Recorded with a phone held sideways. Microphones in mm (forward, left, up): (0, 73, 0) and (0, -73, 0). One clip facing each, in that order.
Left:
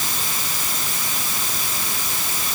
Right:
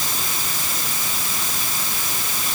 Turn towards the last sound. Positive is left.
No sound to turn to.